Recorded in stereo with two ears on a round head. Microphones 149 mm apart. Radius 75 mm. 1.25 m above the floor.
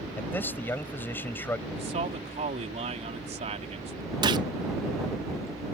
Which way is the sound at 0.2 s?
10° left (ahead or behind).